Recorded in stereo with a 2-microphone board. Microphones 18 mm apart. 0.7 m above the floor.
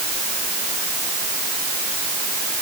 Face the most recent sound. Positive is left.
No sound to turn to.